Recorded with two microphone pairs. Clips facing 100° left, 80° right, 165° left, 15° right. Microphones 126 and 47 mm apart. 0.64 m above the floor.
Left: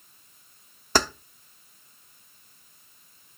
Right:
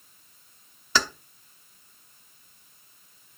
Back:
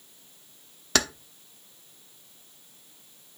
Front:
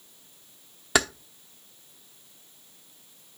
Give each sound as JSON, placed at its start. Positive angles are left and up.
{"t": 0.9, "sound": "keys jangling", "azimuth_deg": 60, "distance_m": 0.8}